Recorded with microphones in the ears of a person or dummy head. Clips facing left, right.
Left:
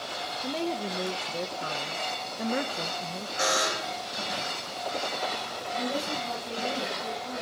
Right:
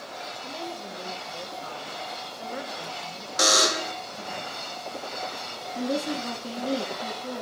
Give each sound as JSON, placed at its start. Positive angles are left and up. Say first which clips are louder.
{"t": 0.4, "sound": "a woman speaking", "louder": "left 8 dB", "side_deg": 60, "distance_m": 0.9}
{"t": 3.4, "sound": "a buzzer", "louder": "right 4 dB", "side_deg": -55, "distance_m": 0.9}
{"t": 5.8, "sound": "a woman speaking", "louder": "right 4 dB", "side_deg": -75, "distance_m": 3.0}